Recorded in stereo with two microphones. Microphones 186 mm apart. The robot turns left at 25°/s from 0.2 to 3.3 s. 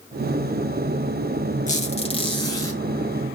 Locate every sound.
1.7 s a squeak: 40° left (ahead or behind), 1.5 m; by 2.8 s 10° left (ahead or behind), 1.5 m